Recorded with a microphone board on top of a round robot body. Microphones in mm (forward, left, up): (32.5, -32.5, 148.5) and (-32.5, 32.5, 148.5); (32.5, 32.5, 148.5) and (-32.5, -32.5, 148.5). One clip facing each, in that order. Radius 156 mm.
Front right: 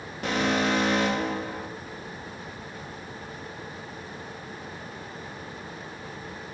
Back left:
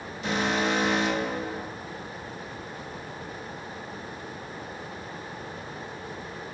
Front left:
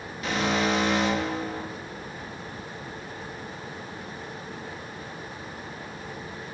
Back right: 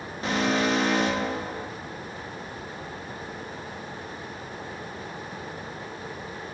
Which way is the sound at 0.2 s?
80° right.